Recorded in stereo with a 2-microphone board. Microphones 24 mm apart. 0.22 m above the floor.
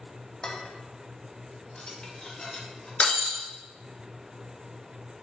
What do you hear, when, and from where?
0.4 s dishes clattering: 35° left (ahead or behind), 0.8 m
3.0 s breaking glass: 65° left (ahead or behind), 1.2 m